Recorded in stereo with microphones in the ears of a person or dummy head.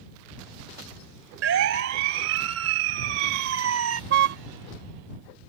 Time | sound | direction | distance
1.4 | a siren | 65° right (ahead or behind) | ?
4.1 | a car horn | 55° right (ahead or behind) | ?